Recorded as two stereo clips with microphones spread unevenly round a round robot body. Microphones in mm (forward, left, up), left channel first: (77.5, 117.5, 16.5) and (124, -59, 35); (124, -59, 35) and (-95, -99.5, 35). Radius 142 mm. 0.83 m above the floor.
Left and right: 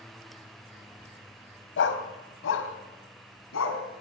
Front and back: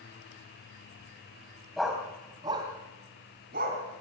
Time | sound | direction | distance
1.8 | a dog barking | 100° left | 2 m